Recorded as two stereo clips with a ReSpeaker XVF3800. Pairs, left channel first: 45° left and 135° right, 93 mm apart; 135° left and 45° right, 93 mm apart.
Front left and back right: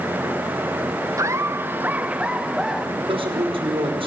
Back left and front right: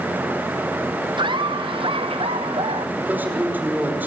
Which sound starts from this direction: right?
Laughter, at 1.2 s.